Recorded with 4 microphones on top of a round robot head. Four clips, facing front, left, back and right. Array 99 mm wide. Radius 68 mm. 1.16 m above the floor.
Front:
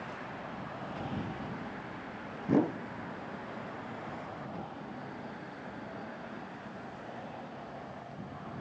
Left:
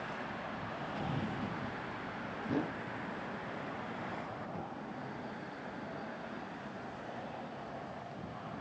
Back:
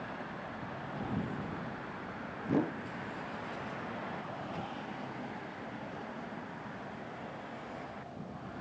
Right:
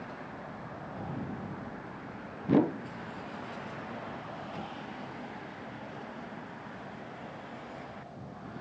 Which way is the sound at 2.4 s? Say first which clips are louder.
Right 11 dB, front 4 dB; 65° right.